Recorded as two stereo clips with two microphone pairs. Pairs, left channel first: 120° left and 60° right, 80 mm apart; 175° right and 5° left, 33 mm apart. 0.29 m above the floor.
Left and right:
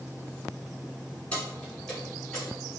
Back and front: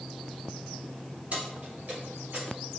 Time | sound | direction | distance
1.3 | keys jangling | 45° left | 1.8 m